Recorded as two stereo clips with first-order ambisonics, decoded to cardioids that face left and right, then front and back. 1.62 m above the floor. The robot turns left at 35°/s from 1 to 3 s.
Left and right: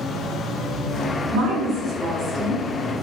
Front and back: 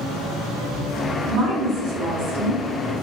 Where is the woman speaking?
130° right, 0.9 m; by 2.9 s 170° left, 0.9 m.